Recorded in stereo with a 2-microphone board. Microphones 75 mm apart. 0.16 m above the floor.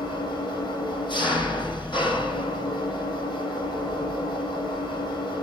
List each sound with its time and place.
0.0 s an engine running: 80° left, 7 m